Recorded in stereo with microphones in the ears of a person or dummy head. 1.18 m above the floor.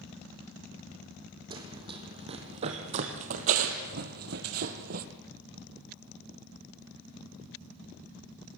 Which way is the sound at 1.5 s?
25° right (ahead or behind).